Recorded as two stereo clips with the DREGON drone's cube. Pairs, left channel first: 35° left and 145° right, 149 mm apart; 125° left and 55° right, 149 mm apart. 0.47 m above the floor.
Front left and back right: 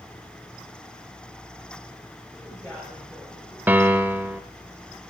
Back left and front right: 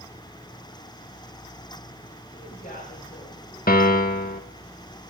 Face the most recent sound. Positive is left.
turn(degrees=140)